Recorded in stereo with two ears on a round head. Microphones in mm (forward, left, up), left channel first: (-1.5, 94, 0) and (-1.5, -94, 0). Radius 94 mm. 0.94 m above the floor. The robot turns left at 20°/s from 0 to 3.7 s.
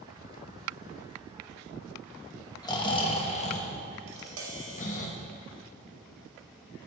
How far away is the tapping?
About 1.8 m.